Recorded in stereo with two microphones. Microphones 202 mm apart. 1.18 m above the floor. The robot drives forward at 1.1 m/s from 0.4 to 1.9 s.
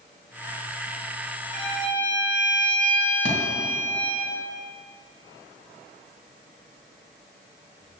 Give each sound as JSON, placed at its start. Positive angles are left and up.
{"t": 1.5, "sound": "a violin", "side_deg": 30, "distance_m": 1.9}
{"t": 3.2, "sound": "a thud", "side_deg": -55, "distance_m": 2.5}